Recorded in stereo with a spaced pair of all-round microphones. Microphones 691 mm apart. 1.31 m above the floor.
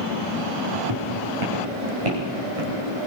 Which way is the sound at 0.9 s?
35° right (ahead or behind).